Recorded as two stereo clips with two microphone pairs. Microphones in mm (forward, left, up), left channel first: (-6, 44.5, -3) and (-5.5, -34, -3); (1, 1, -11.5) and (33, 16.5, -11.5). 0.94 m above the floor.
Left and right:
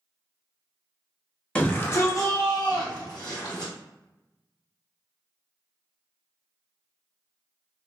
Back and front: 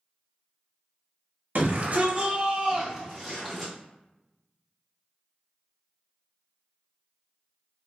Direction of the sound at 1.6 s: 25° left.